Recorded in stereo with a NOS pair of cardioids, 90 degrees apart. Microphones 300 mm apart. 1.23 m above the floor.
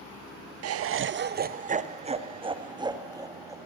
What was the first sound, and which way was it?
Laughter, 55° right.